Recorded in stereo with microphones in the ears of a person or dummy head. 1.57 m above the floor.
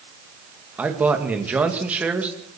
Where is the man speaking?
10° right (ahead or behind), 2.5 m.